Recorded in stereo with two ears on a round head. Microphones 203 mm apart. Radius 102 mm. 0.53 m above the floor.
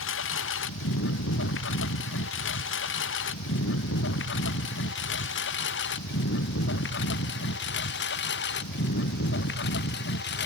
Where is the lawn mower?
60° left (ahead or behind); by 10.5 s 50° left (ahead or behind).